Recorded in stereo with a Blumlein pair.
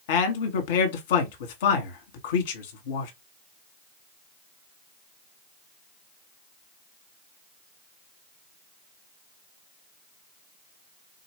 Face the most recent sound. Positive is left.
turn(degrees=50)